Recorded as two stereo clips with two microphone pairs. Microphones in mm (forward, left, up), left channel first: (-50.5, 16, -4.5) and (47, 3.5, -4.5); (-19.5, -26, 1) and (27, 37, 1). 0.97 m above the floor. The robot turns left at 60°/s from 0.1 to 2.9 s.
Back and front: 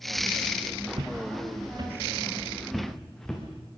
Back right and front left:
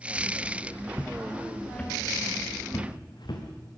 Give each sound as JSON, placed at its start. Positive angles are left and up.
{"t": 0.9, "sound": "footsteps", "azimuth_deg": -10, "distance_m": 3.0}